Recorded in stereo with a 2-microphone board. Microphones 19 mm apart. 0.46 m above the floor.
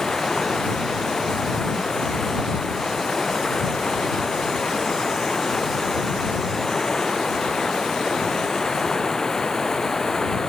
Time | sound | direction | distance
0.0 | running water | 35° left (ahead or behind) | ?